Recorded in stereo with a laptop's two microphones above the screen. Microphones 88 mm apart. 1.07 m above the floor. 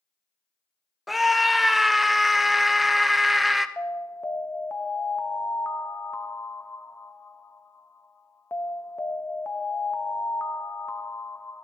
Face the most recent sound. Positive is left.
turn(degrees=25)  # may be behind; listen again after turning